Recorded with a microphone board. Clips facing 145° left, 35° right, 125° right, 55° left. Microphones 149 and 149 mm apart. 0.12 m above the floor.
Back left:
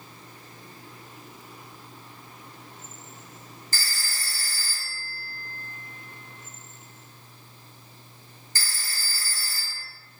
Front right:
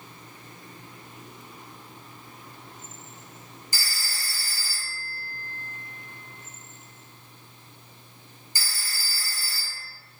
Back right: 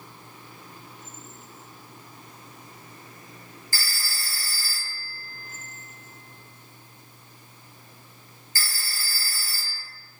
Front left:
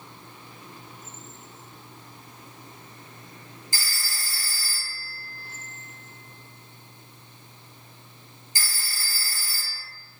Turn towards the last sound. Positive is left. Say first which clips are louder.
# back left 1 dB, back right 1 dB
turn(degrees=20)